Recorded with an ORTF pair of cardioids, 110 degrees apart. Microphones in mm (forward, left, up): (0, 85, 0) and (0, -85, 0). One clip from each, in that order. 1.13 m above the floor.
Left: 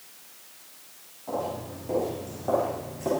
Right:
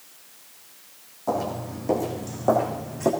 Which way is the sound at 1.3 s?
70° right.